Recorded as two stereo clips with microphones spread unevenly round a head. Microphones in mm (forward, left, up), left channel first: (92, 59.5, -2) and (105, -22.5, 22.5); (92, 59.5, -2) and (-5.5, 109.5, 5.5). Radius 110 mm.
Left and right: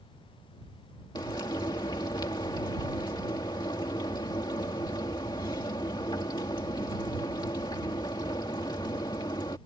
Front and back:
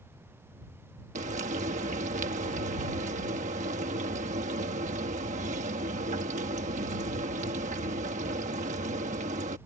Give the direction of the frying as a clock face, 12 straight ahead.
6 o'clock.